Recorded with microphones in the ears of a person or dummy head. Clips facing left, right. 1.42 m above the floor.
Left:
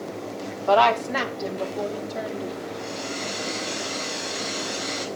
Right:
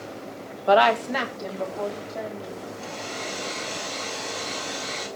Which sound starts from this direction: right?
A woman speaking, at 0.7 s.